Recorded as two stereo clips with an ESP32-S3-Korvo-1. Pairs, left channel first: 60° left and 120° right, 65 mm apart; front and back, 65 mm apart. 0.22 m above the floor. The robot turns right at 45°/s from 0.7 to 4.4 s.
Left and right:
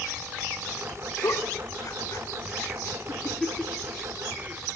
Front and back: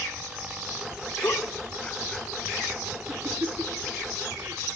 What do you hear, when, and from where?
1.2 s a giggle: 40° left, 0.7 m; by 4.6 s 175° right, 0.7 m